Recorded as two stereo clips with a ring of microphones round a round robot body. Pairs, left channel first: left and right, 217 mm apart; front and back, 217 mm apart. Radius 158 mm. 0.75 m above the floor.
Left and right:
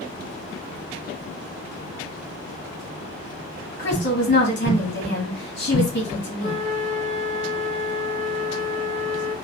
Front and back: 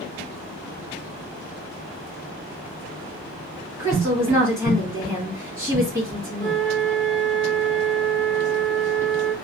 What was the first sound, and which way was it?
A woman speaking, 105° left.